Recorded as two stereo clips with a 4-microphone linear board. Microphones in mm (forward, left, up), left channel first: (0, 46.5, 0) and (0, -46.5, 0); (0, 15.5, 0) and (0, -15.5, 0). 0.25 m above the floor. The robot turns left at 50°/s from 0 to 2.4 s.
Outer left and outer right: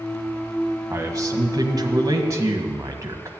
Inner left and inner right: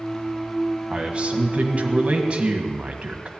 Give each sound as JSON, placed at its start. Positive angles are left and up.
{"t": 0.9, "sound": "a man speaking", "azimuth_deg": -55, "distance_m": 1.6}